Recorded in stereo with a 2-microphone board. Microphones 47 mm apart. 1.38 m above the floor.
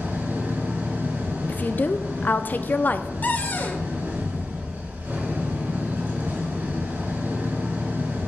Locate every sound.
0.0 s an engine running: 45° right (ahead or behind), 5 m
1.5 s a woman speaking: 35° left (ahead or behind), 0.7 m
3.2 s a cupboard door: 35° left (ahead or behind), 1.2 m